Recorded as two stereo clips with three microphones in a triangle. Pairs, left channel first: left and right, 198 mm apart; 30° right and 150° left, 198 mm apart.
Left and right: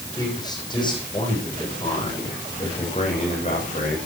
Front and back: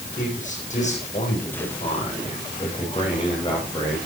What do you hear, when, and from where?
0.2 s a man speaking: 20° left, 10 m; by 4.0 s 40° left, 11.5 m